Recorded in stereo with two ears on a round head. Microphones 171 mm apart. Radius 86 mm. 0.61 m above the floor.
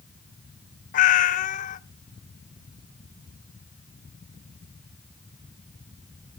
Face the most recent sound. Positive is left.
turn(degrees=40)  # may be behind; listen again after turning